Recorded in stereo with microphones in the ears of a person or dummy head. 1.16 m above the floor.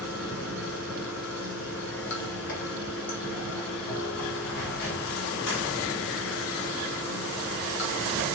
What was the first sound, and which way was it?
Running water, 65° left (ahead or behind).